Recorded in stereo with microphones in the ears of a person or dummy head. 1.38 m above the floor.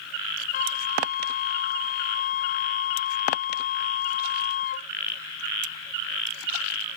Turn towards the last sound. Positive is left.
turn(degrees=35)  # may be behind; listen again after turning